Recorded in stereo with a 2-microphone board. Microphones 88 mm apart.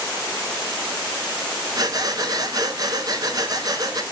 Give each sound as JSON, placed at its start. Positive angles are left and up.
{"t": 1.8, "sound": "breathing", "side_deg": -50, "distance_m": 0.7}